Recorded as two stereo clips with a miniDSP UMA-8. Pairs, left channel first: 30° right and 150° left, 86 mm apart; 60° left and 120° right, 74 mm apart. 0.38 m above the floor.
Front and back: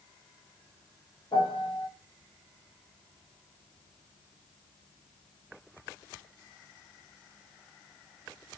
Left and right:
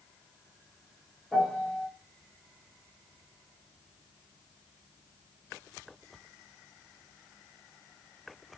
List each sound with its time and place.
1.3 s a piano: 20° right, 1.2 m